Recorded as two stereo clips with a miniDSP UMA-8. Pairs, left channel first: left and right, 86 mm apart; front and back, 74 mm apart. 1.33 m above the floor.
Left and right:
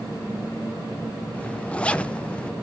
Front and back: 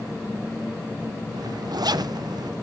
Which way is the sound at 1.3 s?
165° left.